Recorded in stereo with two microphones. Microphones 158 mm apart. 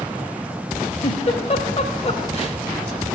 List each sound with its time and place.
1.0 s a giggle: 40° left (ahead or behind), 0.7 m